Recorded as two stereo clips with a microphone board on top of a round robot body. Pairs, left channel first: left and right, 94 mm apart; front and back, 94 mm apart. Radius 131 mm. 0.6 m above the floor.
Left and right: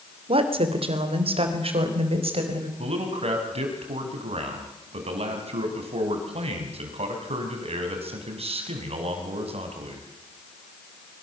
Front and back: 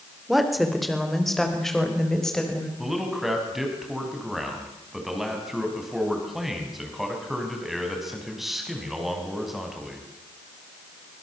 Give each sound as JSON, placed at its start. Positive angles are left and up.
{"t": 0.3, "sound": "a woman speaking", "azimuth_deg": -90, "distance_m": 3.0}
{"t": 2.8, "sound": "a man speaking", "azimuth_deg": -90, "distance_m": 5.0}